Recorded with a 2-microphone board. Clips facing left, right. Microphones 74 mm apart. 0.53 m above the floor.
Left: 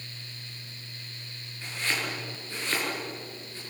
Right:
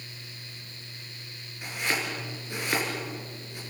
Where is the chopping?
15° right (ahead or behind), 7 m.